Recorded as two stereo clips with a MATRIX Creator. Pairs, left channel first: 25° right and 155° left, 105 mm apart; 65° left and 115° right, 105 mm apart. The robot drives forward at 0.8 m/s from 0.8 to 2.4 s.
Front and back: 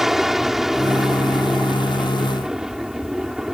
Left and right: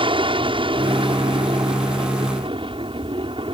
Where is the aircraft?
115° right.